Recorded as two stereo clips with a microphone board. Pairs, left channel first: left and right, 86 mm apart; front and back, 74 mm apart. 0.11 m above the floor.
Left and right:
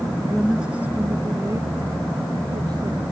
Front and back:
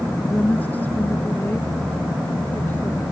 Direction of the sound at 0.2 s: 25° left.